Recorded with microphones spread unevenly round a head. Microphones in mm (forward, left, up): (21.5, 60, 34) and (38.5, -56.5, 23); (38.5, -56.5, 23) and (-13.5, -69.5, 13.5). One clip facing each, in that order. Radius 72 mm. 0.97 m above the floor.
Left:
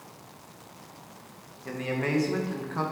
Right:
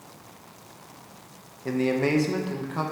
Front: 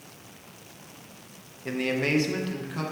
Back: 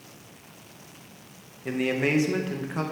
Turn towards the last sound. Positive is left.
turn(degrees=-150)